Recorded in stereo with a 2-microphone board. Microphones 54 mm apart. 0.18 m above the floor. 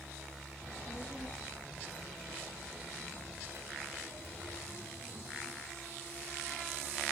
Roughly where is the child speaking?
Centre.